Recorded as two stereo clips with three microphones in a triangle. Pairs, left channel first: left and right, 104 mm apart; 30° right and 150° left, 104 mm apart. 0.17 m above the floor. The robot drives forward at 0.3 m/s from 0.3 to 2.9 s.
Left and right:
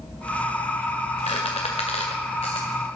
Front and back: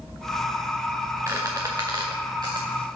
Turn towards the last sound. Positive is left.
turn(degrees=105)